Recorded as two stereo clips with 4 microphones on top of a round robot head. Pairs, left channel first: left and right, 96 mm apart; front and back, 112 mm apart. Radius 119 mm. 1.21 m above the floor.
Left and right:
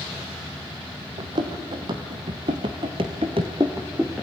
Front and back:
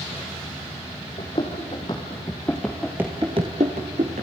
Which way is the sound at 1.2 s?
55° right.